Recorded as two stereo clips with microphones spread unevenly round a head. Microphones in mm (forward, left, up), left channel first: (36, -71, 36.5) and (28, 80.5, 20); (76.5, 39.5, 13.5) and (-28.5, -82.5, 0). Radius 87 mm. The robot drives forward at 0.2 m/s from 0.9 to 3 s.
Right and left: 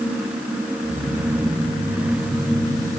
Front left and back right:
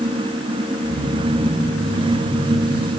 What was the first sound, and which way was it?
Only background noise.